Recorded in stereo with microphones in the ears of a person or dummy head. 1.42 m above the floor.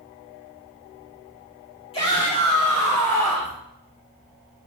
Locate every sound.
1.9 s a shout: 25° left (ahead or behind), 3.5 m; by 3.6 s 10° left (ahead or behind), 3 m